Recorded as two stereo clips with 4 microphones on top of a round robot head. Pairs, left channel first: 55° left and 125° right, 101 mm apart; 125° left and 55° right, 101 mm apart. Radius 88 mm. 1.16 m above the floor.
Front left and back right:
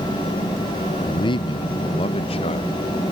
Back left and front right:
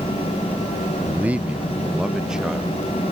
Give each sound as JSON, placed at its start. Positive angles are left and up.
{"t": 1.0, "sound": "a man speaking", "azimuth_deg": 10}